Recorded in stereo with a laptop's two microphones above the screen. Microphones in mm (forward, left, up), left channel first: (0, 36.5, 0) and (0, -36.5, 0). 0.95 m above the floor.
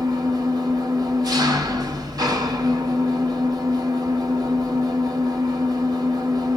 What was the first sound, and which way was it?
An engine running, 65° right (ahead or behind).